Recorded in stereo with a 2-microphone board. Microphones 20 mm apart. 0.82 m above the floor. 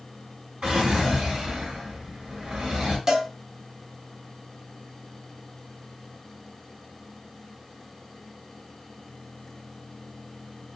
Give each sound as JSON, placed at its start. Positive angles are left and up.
{"t": 0.6, "sound": "a drawer", "side_deg": -80, "distance_m": 2.5}
{"t": 3.1, "sound": "a cowbell", "side_deg": -35, "distance_m": 1.0}